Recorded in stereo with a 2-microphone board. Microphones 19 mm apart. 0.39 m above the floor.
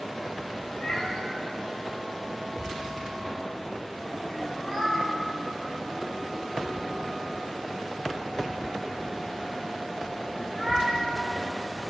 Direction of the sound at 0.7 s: 55° left (ahead or behind).